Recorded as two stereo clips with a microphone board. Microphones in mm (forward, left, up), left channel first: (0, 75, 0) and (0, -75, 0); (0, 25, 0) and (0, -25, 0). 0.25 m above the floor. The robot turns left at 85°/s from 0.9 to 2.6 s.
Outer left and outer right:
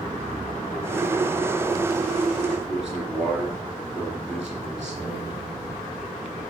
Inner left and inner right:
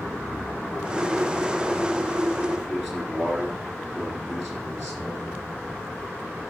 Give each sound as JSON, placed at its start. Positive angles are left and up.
{"t": 2.7, "sound": "a man speaking", "side_deg": -5, "distance_m": 3.0}